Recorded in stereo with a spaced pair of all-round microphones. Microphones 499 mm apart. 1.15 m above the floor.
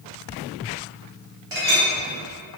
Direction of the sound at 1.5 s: 65° right (ahead or behind).